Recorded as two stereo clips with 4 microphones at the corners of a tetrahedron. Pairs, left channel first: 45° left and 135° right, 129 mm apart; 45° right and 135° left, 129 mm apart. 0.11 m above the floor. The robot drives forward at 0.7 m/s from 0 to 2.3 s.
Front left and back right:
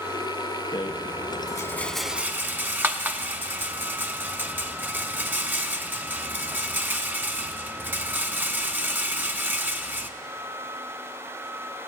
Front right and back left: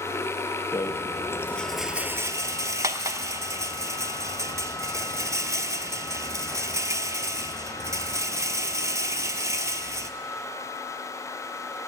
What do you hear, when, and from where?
0.7 s a rattle: 5° left, 1.0 m; by 10.1 s 165° left, 0.6 m